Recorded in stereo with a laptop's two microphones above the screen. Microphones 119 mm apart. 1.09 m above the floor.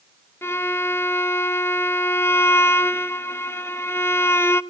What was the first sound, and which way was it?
A violin, 20° left (ahead or behind).